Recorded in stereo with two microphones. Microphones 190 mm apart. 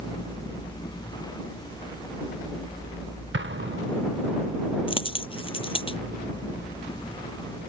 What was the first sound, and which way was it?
An explosion, 75° right (ahead or behind).